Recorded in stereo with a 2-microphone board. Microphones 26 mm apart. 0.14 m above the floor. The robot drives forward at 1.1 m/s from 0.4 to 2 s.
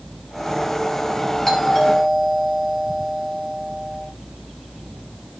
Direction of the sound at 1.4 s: 15° left (ahead or behind).